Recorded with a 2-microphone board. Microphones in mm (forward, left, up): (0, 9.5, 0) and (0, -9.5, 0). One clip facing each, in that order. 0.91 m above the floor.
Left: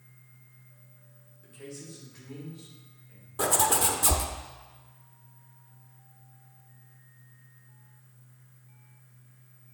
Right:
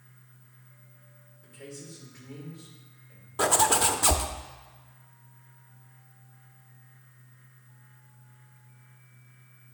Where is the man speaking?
20° left (ahead or behind), 3 m.